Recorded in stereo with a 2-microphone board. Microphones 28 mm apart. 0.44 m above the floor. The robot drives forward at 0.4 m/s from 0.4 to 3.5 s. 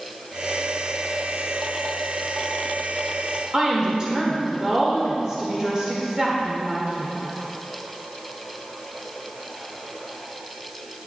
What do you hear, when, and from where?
3.5 s a woman speaking: 25° right (ahead or behind), 1.6 m